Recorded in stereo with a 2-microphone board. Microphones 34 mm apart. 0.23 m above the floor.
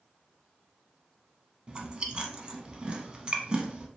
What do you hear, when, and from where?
1.7 s chewing: 25° right (ahead or behind), 0.5 m